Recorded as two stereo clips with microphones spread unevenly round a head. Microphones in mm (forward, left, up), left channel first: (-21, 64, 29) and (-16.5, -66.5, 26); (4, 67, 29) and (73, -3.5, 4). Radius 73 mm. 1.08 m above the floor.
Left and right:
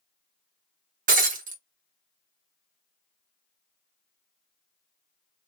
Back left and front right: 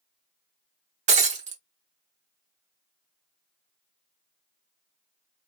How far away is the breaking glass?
About 0.9 m.